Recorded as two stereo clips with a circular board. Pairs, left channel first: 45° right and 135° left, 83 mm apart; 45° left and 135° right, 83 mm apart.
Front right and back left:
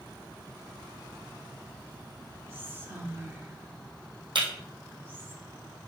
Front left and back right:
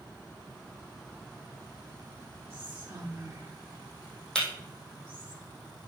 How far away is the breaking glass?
About 3 m.